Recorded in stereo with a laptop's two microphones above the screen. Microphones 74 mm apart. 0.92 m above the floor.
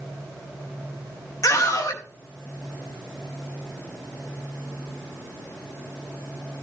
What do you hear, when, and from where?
1.4 s a scream: 50° left (ahead or behind), 1.6 m